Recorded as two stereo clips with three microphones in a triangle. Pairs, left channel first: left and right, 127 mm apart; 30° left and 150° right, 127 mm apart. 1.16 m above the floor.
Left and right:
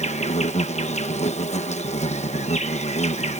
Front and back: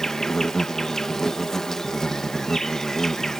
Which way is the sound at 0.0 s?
115° left.